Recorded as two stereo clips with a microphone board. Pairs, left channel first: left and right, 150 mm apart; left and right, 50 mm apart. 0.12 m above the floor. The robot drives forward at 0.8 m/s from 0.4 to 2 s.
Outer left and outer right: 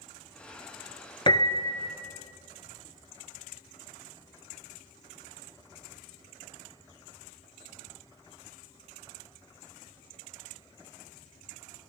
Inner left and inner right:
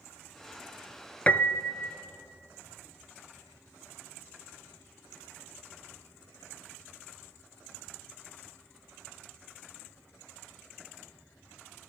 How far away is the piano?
About 1.0 m.